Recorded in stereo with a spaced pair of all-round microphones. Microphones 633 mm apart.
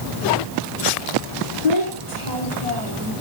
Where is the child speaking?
75° left (ahead or behind), 3.5 m.